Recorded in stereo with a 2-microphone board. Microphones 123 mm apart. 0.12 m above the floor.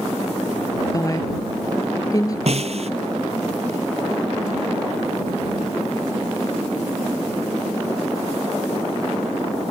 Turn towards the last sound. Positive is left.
turn(degrees=-60)  # may be behind; listen again after turning